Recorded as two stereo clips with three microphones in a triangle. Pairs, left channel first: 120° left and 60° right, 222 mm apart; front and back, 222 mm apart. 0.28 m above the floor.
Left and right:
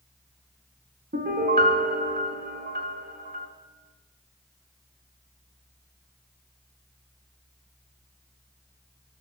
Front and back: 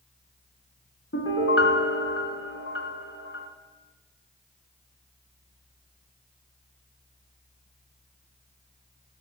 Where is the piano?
15° right, 0.9 m.